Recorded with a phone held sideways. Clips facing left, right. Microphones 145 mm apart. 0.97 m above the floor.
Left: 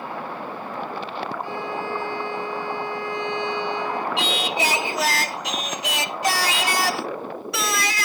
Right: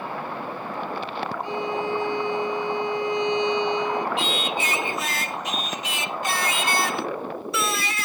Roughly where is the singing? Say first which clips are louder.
Left 2 dB; left.